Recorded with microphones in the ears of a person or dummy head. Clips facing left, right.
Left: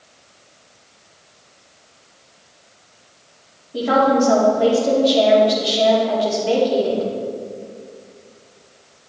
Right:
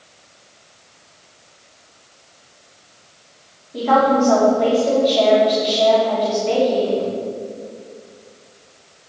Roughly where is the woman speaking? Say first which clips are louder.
Even; centre.